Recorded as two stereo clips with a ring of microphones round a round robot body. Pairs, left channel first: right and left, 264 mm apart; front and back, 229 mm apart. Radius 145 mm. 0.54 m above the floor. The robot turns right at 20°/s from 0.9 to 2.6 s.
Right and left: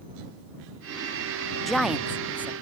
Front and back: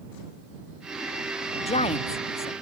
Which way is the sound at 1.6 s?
5° right.